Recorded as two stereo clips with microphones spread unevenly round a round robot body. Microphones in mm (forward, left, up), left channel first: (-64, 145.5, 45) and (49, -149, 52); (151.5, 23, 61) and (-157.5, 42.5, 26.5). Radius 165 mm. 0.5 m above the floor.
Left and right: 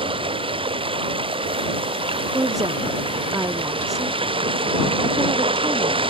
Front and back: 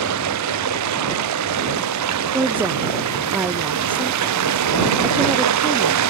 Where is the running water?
145° right.